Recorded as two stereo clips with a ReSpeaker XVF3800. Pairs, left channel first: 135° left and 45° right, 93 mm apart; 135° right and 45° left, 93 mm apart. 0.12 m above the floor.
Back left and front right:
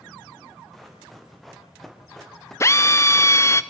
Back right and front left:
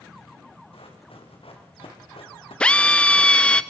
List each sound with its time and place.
0.7 s running footsteps: 135° right, 5.5 m; by 3.6 s 140° right, 2.5 m
2.6 s a drill: 155° left, 0.6 m